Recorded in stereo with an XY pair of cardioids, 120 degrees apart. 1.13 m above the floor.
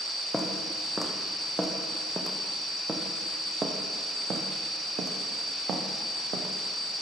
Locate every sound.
0.3 s footsteps: 5° left, 4.5 m; by 7.0 s 70° right, 4.5 m